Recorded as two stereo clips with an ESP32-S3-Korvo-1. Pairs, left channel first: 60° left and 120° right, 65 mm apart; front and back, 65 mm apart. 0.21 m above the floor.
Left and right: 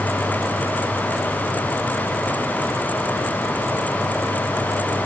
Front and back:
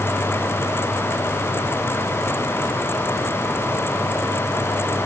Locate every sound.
Only background noise.